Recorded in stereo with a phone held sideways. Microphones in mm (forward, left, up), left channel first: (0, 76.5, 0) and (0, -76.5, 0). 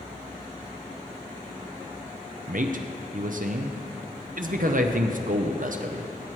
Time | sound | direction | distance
2.5 | a man speaking | 65° right (ahead or behind) | 0.6 m